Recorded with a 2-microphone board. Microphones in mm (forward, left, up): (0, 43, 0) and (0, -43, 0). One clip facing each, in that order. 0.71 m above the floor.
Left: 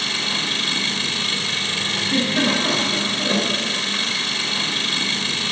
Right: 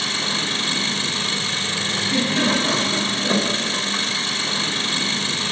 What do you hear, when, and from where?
0.0 s an engine running: 25° right (ahead or behind), 1.5 m
2.0 s a giggle: 55° left (ahead or behind), 6 m